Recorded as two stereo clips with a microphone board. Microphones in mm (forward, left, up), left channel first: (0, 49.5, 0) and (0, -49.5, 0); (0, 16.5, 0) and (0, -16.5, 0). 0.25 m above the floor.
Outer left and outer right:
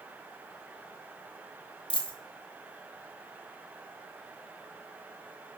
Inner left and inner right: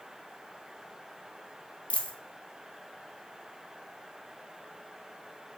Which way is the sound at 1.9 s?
55° left (ahead or behind).